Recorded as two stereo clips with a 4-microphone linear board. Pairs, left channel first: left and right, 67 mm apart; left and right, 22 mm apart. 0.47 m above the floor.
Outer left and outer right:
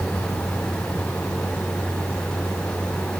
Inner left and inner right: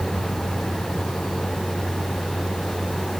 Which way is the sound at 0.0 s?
35° left (ahead or behind).